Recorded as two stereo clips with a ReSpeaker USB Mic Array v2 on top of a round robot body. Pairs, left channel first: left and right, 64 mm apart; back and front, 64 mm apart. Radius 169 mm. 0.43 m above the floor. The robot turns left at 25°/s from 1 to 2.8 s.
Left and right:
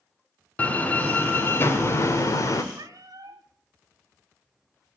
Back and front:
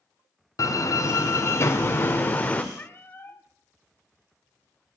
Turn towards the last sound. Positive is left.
turn(degrees=-120)